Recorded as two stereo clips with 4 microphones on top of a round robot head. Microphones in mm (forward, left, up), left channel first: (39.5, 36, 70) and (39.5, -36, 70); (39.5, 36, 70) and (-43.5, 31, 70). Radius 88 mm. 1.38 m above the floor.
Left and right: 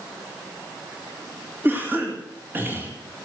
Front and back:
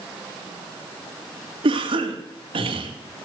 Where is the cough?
155° right, 2.5 m.